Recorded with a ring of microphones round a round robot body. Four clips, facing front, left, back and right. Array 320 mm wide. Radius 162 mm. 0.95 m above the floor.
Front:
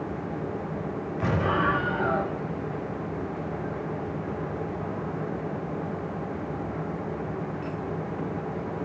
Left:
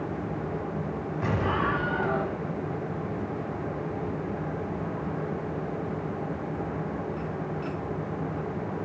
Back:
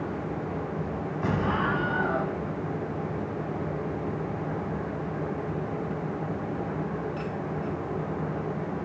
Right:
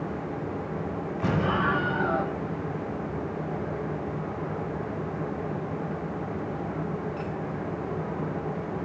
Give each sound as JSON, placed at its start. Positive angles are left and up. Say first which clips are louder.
{"t": 1.2, "sound": "an explosion", "louder": "right 2 dB, front 2 dB", "azimuth_deg": 15, "distance_m": 5.5}